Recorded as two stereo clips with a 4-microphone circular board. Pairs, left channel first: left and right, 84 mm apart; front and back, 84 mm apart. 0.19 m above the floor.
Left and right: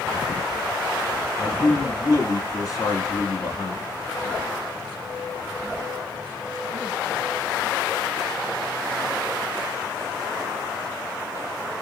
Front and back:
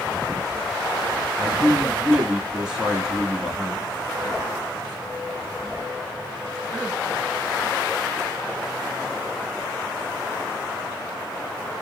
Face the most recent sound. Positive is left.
turn(degrees=100)